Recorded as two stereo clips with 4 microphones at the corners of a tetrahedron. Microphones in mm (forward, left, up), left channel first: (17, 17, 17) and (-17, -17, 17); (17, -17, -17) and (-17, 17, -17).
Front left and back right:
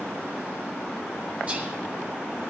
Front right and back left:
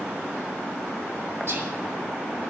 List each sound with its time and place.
1.5 s whispering: 170° left, 4.5 m